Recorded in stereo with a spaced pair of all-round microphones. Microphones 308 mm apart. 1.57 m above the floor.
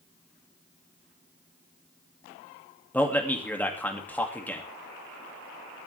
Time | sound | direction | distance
2.9 | a man speaking | 5° left (ahead or behind) | 2.5 m